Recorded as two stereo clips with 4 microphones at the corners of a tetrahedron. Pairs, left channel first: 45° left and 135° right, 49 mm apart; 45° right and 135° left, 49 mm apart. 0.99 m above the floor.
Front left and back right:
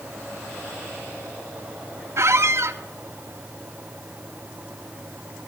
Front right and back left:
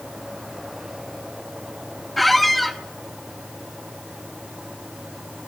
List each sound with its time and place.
2.2 s a squeak: 135° right, 0.8 m